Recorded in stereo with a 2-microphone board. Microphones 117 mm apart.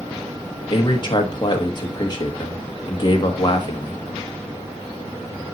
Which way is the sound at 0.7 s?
40° left (ahead or behind).